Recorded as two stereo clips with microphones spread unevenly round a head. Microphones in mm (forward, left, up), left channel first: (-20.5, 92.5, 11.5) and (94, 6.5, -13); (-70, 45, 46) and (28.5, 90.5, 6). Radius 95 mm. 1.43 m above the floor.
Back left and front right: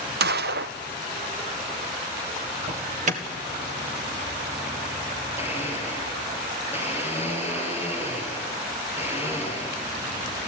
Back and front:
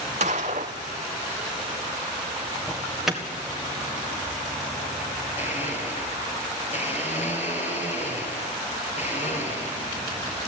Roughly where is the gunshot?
Ahead right.